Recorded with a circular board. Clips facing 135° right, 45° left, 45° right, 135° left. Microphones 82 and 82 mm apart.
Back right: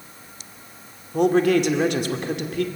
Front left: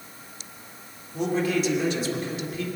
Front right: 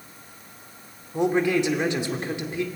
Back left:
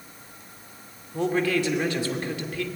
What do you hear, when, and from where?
1.1 s a man speaking: 115° right, 2.5 m